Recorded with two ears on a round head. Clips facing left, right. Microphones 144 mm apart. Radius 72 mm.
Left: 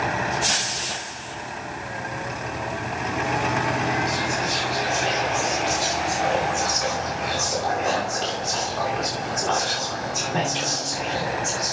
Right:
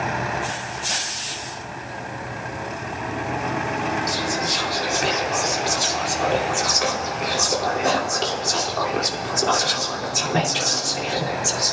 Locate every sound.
4.1 s whispering: 65° right (ahead or behind), 2.5 m